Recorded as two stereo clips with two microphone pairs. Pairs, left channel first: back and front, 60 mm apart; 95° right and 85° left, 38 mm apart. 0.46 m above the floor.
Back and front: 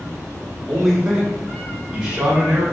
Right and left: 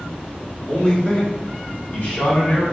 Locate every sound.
0.7 s a man speaking: 85° right, 1.0 m; by 2.6 s 75° right, 1.7 m